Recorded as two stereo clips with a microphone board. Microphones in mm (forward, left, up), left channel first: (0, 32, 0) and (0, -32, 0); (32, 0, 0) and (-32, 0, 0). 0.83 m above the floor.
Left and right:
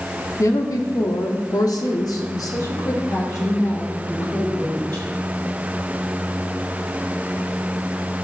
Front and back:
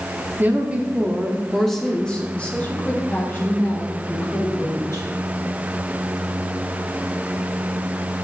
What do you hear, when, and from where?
0.4 s a woman speaking: 125° left, 1.3 m; by 5.1 s 45° left, 3 m